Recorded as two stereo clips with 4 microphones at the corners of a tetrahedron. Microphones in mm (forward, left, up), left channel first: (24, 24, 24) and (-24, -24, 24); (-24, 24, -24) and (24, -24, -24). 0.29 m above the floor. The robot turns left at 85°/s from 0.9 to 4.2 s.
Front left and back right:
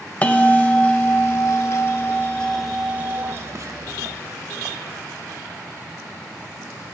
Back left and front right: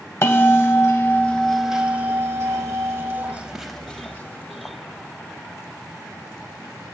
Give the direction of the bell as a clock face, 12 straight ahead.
9 o'clock.